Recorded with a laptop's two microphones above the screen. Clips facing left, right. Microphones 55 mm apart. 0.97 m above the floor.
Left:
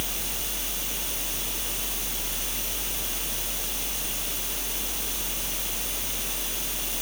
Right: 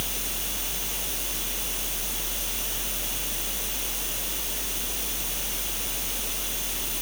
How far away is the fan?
About 3 m.